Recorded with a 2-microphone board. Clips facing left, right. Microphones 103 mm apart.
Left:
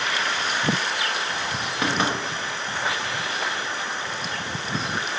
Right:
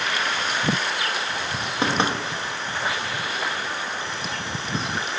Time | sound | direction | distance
1.8 | knocking | 25° right (ahead or behind) | 1.1 m